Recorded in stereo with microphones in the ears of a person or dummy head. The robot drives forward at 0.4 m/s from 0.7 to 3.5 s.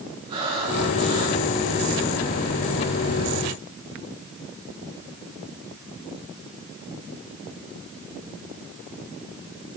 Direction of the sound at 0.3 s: 30° right (ahead or behind).